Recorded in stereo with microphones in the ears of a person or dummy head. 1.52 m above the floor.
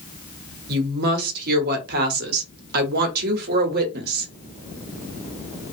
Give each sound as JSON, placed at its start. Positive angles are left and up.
{"t": 0.7, "sound": "a woman speaking", "side_deg": -55, "distance_m": 0.9}